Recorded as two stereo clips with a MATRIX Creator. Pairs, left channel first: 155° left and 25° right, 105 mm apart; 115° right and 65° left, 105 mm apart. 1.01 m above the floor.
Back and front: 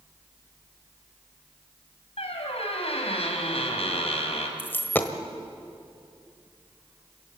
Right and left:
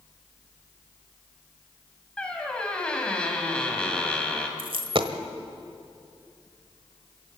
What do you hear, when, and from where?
2.2 s a squeak: 170° left, 3 m
4.6 s a dropped coin: 90° left, 1.3 m